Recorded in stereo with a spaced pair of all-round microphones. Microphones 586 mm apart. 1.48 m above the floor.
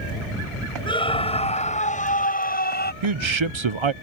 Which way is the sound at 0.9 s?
10° left (ahead or behind).